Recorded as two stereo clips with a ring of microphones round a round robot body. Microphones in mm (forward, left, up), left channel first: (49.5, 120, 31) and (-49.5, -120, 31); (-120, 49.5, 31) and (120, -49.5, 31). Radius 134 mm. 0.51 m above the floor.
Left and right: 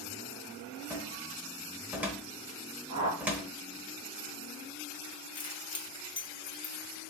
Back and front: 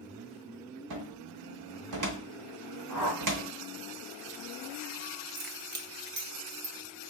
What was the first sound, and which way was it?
A cupboard door, 30° right.